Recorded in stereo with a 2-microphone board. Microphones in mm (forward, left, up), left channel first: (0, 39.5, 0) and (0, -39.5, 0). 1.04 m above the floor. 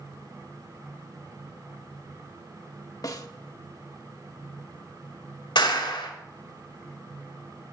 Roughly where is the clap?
Left.